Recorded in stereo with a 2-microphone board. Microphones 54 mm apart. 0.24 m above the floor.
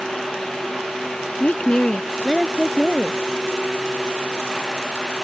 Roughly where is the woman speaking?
Left.